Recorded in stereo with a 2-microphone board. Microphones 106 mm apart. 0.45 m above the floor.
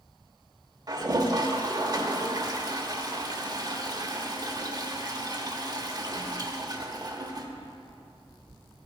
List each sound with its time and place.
0.9 s a toilet flushing: 40° right (ahead or behind), 1.0 m